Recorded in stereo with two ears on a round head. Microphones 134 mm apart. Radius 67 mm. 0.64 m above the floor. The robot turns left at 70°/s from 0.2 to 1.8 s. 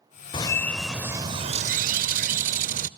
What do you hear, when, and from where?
0.3 s a bird: 35° left, 0.5 m; by 2.9 s 65° right, 0.5 m